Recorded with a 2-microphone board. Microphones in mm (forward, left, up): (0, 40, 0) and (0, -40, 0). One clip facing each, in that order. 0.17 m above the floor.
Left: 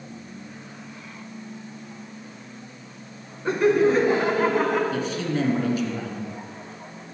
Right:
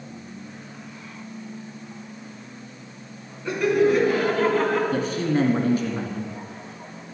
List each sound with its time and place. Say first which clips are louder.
3.5 s laughter: left 1 dB; 35° left (ahead or behind), 1.6 m; by 4.8 s 5° left (ahead or behind), 1.4 m
4.9 s a man speaking: right 3 dB; 40° right (ahead or behind), 1.9 m